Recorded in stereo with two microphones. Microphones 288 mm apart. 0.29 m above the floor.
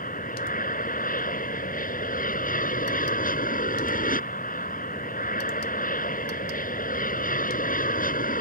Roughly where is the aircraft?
Left.